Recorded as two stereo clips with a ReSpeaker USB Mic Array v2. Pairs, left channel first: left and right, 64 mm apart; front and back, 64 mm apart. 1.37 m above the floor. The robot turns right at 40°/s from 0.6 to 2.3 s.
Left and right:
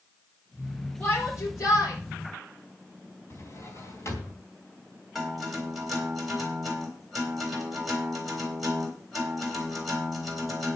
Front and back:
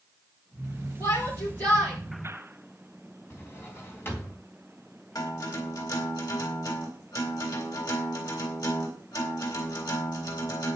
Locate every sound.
1.0 s a shout: 30° left, 5 m; by 2.0 s 70° left, 5 m
3.3 s a drawer: 50° left, 3 m
5.2 s a guitar: straight ahead, 4 m